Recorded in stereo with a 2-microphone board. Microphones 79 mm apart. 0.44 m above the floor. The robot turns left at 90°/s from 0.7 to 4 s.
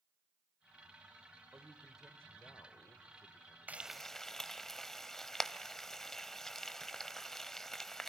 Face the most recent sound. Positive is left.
turn(degrees=5)  # may be behind; listen again after turning